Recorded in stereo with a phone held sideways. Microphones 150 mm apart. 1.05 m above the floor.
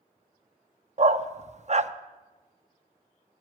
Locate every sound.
1.0 s a dog barking: 50° right (ahead or behind), 0.6 m